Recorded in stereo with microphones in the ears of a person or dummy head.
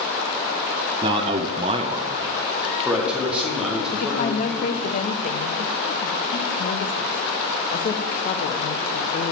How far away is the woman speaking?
About 0.9 m.